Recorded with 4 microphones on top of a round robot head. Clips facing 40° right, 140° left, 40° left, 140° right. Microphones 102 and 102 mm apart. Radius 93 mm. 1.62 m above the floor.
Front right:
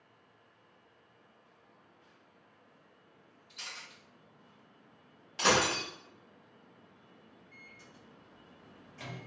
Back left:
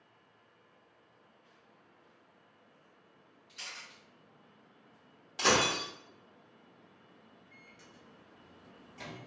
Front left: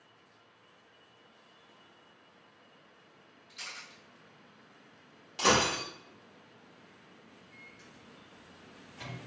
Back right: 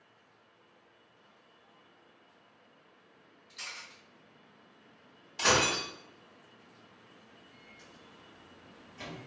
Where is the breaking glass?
55° left, 0.8 m.